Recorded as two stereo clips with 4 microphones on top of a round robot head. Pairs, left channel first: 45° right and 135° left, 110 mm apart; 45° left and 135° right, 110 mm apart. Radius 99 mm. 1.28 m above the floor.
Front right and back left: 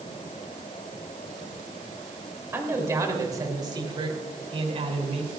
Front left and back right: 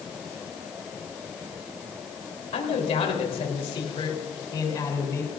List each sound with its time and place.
2.5 s a man speaking: 65° left, 4 m; by 5.3 s 110° left, 3.5 m